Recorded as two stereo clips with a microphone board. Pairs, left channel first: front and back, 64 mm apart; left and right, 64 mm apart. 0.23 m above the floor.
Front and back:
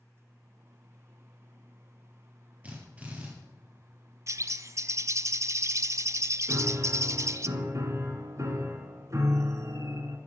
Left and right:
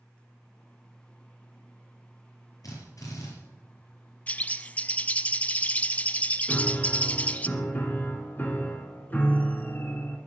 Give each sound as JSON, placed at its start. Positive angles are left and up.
{"t": 2.6, "sound": "a drill", "azimuth_deg": 110, "distance_m": 6.0}
{"t": 4.3, "sound": "a bird", "azimuth_deg": 155, "distance_m": 0.7}
{"t": 6.5, "sound": "a piano", "azimuth_deg": 150, "distance_m": 2.5}